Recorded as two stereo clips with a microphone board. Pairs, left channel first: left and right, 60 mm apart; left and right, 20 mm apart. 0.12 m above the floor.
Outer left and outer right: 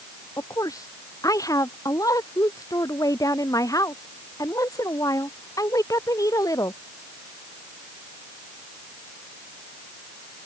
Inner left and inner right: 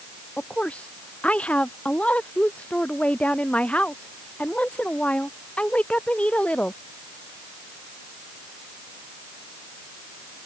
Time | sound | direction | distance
0.4 | a woman speaking | 75° left (ahead or behind) | ?